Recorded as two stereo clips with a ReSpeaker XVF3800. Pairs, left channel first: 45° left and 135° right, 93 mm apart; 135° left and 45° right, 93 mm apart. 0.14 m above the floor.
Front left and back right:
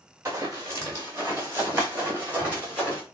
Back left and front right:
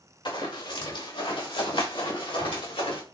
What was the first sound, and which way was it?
Running footsteps, 165° left.